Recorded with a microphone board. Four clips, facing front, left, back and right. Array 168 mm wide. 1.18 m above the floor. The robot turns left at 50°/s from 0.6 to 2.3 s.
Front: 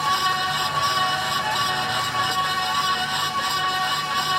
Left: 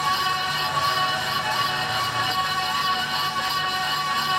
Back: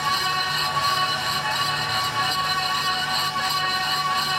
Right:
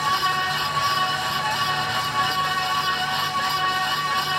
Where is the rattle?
No rattle in this recording.